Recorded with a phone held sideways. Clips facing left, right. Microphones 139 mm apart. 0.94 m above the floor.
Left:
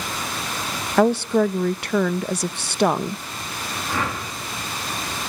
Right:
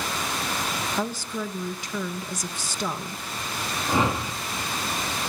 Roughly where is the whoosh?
Right.